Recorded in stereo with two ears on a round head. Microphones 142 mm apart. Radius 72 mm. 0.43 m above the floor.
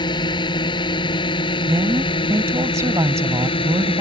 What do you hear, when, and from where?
0.0 s a drone: 30° left (ahead or behind); by 4.0 s 35° left (ahead or behind)
1.6 s a woman speaking: 20° right (ahead or behind)